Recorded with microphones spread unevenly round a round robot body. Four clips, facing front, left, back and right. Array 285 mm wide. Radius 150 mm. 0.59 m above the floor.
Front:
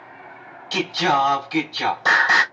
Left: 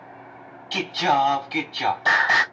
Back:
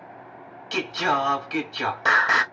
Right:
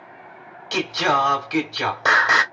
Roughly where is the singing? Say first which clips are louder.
Right 1 dB, front 4 dB; right.